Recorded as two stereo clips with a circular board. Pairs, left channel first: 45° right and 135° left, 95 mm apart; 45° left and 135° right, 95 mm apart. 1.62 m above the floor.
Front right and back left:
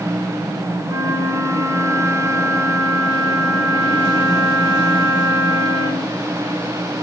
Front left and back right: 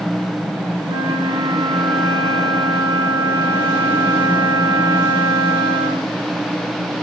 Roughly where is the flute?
Behind.